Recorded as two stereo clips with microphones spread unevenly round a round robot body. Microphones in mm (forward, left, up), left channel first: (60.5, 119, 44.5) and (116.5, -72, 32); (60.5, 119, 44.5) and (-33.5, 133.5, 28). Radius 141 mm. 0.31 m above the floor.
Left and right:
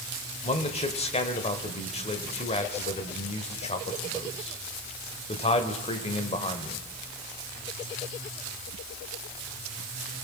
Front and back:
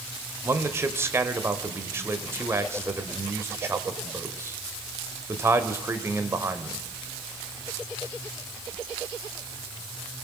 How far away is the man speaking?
About 1.4 m.